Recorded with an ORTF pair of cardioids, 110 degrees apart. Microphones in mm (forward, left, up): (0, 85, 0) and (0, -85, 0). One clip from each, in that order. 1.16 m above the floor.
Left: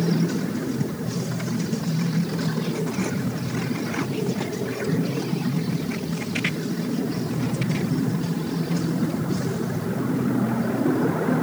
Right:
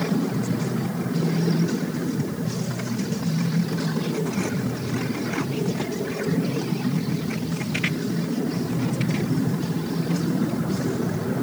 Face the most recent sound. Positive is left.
No sound to turn to.